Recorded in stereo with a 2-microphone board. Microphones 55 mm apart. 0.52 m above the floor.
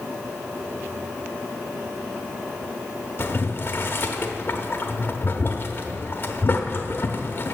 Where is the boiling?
40° left (ahead or behind), 0.7 m.